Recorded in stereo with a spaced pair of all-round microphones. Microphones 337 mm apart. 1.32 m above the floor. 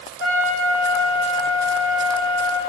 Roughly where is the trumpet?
Left.